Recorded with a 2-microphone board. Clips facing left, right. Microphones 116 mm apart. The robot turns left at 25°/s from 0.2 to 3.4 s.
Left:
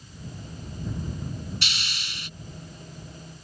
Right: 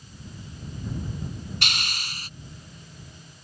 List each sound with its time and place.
1.6 s a hiss: 55° right (ahead or behind); by 2.3 s 40° right (ahead or behind)